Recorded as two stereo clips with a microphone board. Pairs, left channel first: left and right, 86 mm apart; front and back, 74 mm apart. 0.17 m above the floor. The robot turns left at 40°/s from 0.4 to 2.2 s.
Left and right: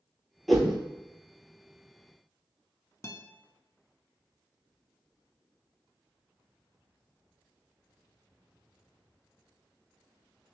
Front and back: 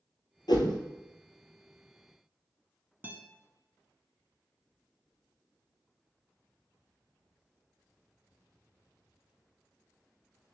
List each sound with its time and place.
0.5 s a whoosh: straight ahead, 0.7 m; by 0.8 s 10° right, 0.7 m
3.0 s a guitar: 130° left, 0.6 m